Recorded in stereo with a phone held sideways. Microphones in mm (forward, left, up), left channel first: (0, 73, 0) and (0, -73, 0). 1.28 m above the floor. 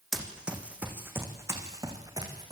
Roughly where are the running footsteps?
Centre.